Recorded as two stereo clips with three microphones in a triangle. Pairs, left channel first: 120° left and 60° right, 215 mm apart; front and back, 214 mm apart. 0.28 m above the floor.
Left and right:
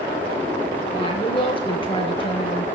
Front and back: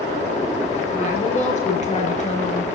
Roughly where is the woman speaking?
Ahead left.